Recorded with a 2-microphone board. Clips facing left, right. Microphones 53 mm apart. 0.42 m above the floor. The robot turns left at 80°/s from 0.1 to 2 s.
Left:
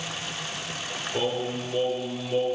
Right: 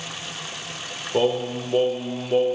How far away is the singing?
About 0.7 m.